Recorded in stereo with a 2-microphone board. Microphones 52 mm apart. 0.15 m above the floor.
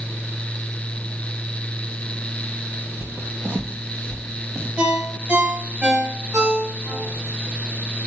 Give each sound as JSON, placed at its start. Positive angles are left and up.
{"t": 3.0, "sound": "footsteps", "side_deg": -50, "distance_m": 0.7}
{"t": 4.8, "sound": "a ringtone", "side_deg": -40, "distance_m": 1.7}